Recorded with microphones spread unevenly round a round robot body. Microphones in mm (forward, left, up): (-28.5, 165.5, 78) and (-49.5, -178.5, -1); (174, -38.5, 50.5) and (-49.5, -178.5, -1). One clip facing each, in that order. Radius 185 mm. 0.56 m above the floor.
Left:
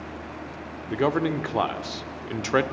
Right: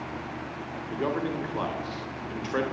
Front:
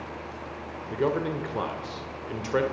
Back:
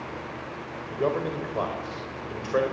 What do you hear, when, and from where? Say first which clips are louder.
0.9 s a man speaking: left 6 dB, front 1 dB; 105° left, 1.7 m